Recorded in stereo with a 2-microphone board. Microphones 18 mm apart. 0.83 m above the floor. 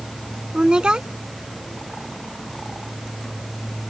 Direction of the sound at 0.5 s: 60° right (ahead or behind).